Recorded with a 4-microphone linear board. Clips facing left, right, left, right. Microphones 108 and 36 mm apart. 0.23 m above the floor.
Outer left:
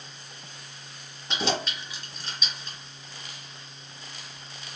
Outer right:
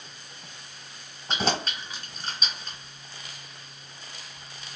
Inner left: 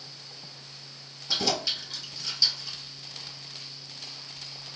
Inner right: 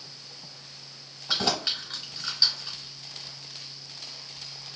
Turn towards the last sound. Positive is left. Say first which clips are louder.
# outer right 1 dB, inner right 1 dB
turn(degrees=-40)  # may be behind; listen again after turning